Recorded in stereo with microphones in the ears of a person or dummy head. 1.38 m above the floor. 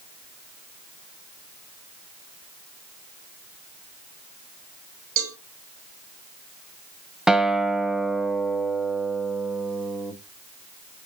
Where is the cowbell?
70° right (ahead or behind), 2 m.